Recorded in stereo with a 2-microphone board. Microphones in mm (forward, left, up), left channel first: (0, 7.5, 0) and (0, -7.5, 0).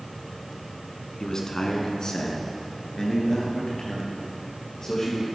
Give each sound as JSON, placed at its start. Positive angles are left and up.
{"t": 1.2, "sound": "a man speaking", "side_deg": 45, "distance_m": 1.8}